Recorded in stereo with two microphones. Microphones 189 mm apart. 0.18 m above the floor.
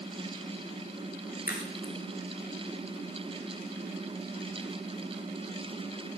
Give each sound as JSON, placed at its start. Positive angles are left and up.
{"t": 1.5, "sound": "a crack", "side_deg": 50, "distance_m": 5.5}